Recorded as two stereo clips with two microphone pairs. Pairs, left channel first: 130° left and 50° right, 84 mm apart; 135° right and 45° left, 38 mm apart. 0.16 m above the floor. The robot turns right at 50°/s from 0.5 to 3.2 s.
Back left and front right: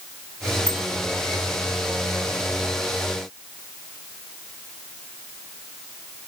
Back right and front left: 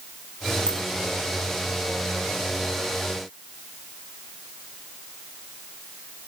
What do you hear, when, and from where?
0.7 s a bicycle bell: 155° right, 6 m; by 0.8 s 145° right, 6 m